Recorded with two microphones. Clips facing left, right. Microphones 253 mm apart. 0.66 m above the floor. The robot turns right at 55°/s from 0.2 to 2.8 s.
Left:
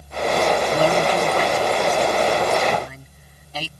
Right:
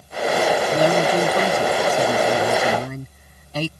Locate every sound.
0.7 s a man speaking: 170° right; by 3.7 s 55° right